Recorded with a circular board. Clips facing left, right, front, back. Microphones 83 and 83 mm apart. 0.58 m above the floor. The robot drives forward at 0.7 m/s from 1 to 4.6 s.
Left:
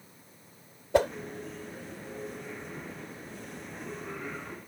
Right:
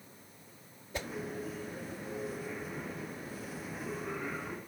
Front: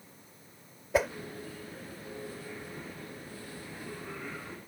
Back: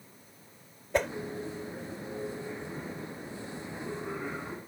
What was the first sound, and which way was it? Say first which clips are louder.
A whoosh: left 16 dB, front 1 dB; 85° left.